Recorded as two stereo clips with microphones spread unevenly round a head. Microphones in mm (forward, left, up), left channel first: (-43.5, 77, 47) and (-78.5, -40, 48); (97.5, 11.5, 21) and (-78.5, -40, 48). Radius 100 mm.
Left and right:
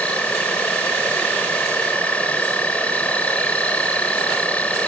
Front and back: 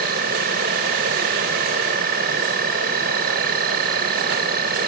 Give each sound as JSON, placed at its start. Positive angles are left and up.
{"t": 0.0, "sound": "an insect", "azimuth_deg": 150}